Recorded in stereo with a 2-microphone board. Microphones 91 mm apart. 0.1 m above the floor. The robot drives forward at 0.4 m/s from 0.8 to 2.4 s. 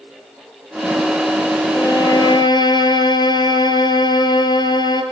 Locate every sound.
1.7 s a violin: 50° left (ahead or behind), 2 m